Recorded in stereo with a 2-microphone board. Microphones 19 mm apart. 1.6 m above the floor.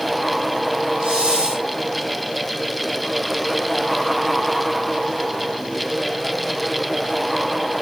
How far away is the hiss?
About 6.5 m.